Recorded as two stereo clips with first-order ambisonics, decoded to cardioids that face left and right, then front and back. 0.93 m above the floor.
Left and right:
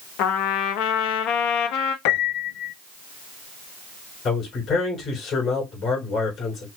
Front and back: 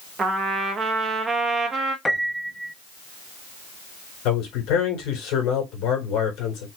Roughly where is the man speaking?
Ahead left.